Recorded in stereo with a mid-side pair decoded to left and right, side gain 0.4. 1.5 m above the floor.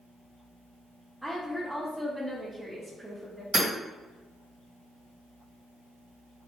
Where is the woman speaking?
10° right, 1.0 m.